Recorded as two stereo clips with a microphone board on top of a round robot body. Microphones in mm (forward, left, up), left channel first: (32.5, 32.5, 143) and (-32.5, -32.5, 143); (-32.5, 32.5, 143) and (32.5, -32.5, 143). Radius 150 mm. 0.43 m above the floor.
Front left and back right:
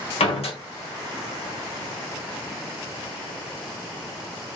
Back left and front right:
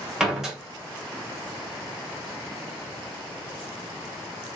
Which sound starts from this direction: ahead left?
A door slam, at 0.2 s.